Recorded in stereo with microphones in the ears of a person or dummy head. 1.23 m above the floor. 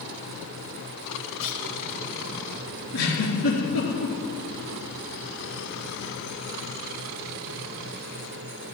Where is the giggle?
75° left (ahead or behind), 4.5 m.